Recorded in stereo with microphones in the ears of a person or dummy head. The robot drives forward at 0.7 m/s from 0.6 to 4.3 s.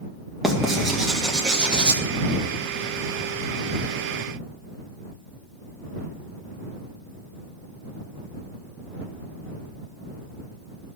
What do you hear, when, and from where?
0.4 s writing: 10° right (ahead or behind), 1.9 m; by 2.0 s 15° right (ahead or behind), 1.0 m